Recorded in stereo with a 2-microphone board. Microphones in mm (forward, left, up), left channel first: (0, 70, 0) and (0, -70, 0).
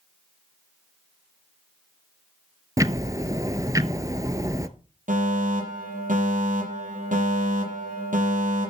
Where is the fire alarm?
70° right (ahead or behind), 6 m.